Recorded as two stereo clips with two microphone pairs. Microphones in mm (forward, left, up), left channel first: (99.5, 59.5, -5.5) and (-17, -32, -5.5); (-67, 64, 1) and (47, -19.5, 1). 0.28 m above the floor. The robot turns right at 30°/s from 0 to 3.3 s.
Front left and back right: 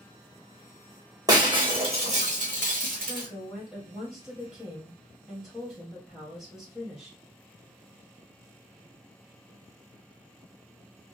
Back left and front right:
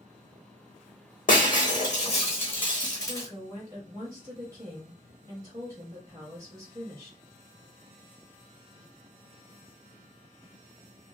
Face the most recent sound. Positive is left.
turn(degrees=-55)